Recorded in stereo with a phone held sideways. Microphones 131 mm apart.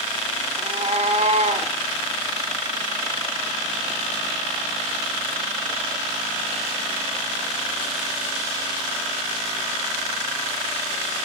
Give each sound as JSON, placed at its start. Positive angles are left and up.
{"t": 0.6, "sound": "a cat meowing", "side_deg": -50, "distance_m": 1.1}